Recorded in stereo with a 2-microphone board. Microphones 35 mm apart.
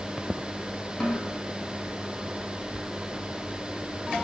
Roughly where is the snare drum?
Left.